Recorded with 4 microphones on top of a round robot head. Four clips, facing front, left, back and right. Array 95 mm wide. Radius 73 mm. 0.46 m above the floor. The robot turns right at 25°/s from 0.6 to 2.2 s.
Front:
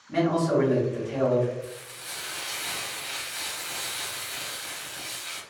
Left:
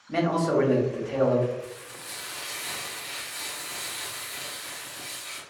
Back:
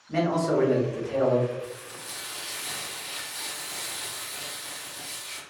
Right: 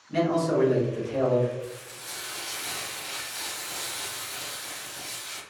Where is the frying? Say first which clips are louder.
Right 1 dB, back 1 dB; 35° right, 1.0 m; by 5.4 s 20° right, 1.0 m.